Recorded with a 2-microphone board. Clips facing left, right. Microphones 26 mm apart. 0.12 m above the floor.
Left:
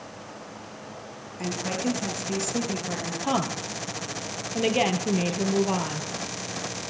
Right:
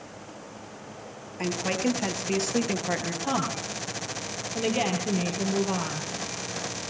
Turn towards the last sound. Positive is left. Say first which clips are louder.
# left 3 dB
turn(degrees=15)  # may be behind; listen again after turning